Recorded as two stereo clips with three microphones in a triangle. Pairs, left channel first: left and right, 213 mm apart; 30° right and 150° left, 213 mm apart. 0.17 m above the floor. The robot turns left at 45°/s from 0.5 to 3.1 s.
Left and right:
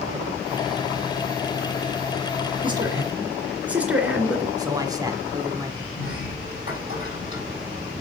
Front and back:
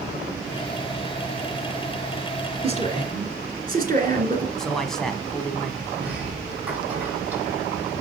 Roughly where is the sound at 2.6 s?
Behind right.